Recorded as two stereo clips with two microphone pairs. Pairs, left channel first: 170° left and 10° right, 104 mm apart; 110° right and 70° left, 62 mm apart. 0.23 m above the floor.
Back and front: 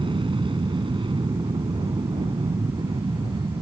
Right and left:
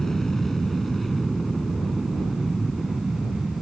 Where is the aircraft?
25° right; by 3.6 s 10° right.